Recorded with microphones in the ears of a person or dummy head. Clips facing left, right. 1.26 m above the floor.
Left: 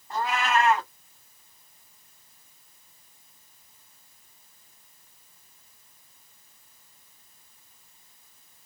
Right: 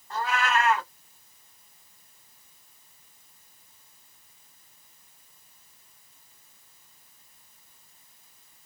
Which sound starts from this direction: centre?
A cat meowing, at 0.1 s.